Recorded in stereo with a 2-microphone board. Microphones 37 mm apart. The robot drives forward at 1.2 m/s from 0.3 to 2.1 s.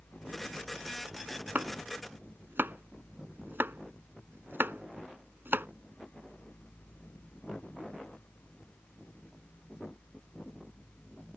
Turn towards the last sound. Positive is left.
turn(degrees=-75)  # may be behind; listen again after turning